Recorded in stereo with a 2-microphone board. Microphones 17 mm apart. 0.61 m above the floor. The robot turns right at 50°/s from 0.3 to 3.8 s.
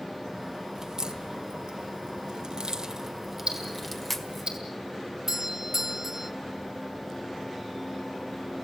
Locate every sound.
0.8 s a crack: 35° right (ahead or behind), 1.9 m; by 4.5 s 10° left (ahead or behind), 1.9 m
3.5 s ticking: 80° right, 5 m; by 4.6 s 65° right (ahead or behind), 5 m
5.3 s a doorbell: 25° right (ahead or behind), 1.3 m